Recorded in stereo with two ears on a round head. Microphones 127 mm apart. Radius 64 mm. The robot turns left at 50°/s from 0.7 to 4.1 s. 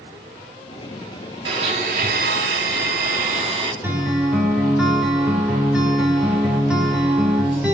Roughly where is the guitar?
Centre.